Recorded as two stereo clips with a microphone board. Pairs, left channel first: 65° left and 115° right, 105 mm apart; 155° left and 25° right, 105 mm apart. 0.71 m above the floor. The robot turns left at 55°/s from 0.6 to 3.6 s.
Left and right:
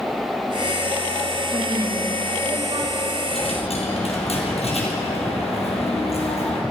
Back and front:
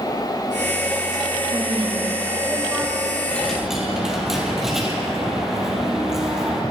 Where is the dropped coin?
80° left, 3 m; by 6.6 s 65° left, 3 m.